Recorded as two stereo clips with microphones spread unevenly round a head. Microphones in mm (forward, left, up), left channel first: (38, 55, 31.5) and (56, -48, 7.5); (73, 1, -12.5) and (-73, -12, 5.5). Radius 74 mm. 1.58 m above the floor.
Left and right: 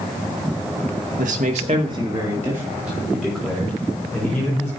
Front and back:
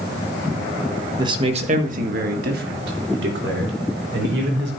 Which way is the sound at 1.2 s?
115° right.